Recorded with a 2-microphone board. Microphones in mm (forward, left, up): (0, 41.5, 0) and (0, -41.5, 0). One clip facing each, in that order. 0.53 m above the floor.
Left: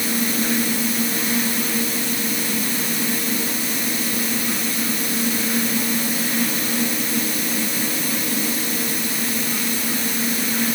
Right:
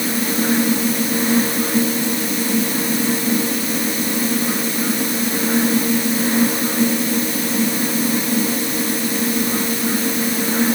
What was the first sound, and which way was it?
Only background noise.